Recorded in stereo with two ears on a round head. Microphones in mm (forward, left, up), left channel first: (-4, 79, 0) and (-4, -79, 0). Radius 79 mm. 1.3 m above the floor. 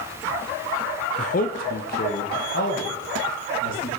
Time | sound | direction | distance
1.2 | a man speaking | 40° left (ahead or behind) | 0.6 m